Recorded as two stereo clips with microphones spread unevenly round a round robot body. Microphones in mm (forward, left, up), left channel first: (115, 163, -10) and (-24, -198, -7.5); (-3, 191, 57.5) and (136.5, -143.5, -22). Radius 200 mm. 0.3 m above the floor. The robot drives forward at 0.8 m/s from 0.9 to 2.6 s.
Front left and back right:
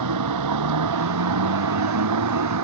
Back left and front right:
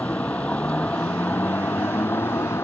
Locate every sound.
0.0 s a vehicle: 160° right; by 2.6 s 165° right